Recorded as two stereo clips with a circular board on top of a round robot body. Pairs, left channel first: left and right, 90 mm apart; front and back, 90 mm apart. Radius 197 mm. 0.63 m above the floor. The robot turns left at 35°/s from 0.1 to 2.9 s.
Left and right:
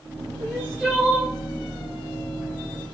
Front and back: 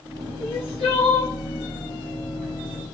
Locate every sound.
0.4 s crying: 20° left, 0.9 m; by 1.3 s 15° right, 0.9 m